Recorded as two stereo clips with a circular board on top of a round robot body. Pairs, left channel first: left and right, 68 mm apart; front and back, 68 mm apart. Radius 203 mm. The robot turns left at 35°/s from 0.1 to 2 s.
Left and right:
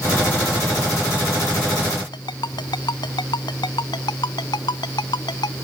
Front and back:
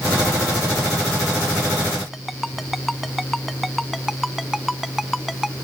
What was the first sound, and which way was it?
A ringtone, 90° left.